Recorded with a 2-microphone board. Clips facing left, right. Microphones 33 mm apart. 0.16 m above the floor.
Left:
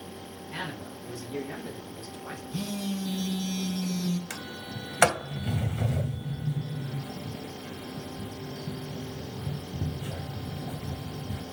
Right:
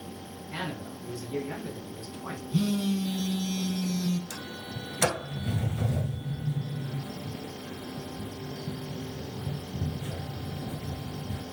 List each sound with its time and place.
0.5 s a man speaking: 15° right (ahead or behind), 1.8 m; by 2.4 s 40° right (ahead or behind), 2 m
2.5 s a phone buzzing: 25° right (ahead or behind), 0.7 m
4.3 s a sliding door: 55° left (ahead or behind), 0.5 m